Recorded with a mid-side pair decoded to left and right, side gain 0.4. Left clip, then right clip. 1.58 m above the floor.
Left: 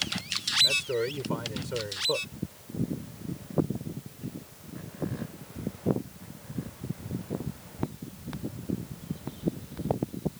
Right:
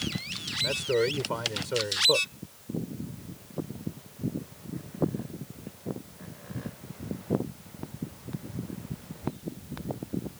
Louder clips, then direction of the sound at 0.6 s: Left 1 dB; 35° right.